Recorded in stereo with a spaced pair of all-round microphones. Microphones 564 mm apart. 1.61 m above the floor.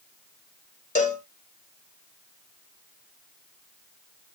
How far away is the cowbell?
About 0.5 m.